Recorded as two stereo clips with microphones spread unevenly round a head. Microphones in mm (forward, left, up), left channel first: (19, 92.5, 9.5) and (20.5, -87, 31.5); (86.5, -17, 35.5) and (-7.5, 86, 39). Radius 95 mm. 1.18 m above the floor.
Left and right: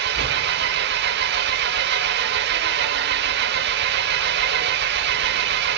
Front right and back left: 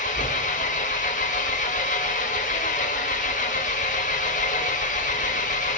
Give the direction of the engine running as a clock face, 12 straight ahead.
3 o'clock.